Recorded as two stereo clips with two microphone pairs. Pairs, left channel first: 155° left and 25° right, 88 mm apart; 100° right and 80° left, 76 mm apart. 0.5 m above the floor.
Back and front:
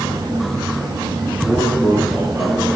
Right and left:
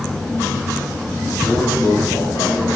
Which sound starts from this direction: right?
A man speaking, at 1.4 s.